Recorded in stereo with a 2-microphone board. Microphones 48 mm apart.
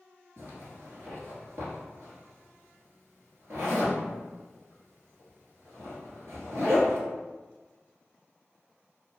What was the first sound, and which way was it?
A zipper, 75° right (ahead or behind).